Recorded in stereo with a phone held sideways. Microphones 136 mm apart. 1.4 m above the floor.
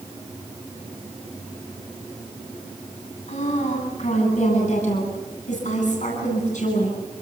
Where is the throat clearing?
I don't hear throat clearing.